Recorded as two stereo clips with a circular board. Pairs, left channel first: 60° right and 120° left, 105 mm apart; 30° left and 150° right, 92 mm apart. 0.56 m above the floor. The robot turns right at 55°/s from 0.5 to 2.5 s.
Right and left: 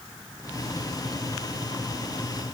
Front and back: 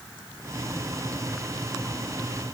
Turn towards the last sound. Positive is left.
No sound to turn to.